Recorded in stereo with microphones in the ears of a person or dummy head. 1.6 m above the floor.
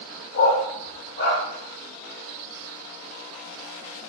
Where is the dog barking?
45° left (ahead or behind), 1.4 m.